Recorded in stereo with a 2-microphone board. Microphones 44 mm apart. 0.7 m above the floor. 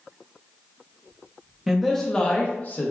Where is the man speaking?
5° right (ahead or behind), 0.6 m; by 2.9 s 45° left (ahead or behind), 0.8 m.